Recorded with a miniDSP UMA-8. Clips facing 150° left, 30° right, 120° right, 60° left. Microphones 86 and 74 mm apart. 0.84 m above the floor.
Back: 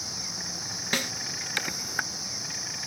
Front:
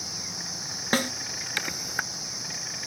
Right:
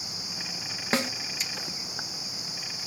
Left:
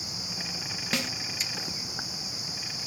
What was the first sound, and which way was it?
A snare drum, 70° right.